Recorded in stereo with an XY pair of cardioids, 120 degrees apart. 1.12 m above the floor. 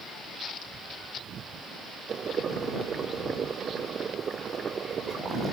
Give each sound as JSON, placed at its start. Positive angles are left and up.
{"t": 2.1, "sound": "boiling", "azimuth_deg": -40}